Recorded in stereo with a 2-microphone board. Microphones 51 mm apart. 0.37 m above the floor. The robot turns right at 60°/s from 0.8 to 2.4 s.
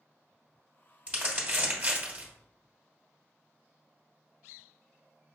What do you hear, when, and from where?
1.1 s crumpling: 25° right (ahead or behind), 1.5 m; by 2.3 s 30° right (ahead or behind), 1.5 m